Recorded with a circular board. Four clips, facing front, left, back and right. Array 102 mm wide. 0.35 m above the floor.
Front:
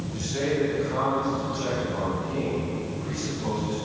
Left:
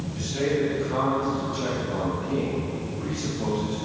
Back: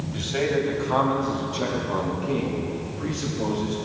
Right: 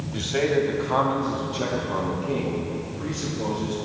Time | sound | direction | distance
0.1 | a man speaking | 115° right | 2 m